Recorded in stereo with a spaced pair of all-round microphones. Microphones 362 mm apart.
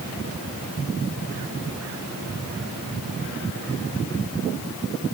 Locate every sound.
Only background noise.